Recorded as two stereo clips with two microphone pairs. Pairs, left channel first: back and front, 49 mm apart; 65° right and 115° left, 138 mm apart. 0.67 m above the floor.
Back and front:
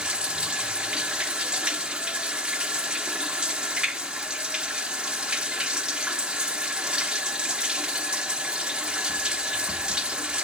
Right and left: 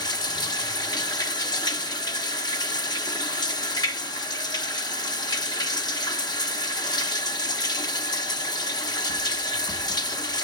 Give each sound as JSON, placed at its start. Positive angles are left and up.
{"t": 0.0, "sound": "running water", "azimuth_deg": -55, "distance_m": 0.8}